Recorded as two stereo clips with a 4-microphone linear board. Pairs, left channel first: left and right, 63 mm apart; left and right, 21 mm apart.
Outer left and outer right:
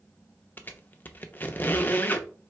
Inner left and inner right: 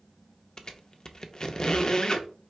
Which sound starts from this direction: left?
A squeak, at 0.6 s.